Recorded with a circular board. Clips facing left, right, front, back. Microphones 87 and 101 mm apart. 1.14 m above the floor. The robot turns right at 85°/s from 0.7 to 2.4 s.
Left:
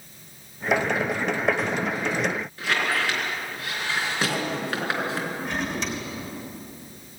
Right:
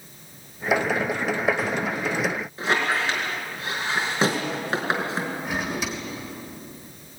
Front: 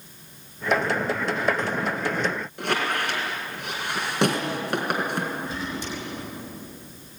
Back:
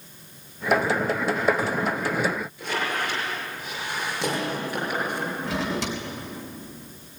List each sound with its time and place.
2.6 s a squeak: 25° right, 4 m
5.4 s a drawer: 175° right, 3.5 m